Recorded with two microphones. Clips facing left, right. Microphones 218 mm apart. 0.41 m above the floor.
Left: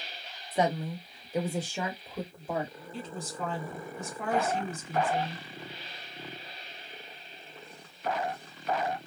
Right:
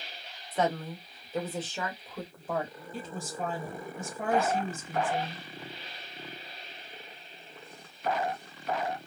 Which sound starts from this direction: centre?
A woman speaking, at 0.5 s.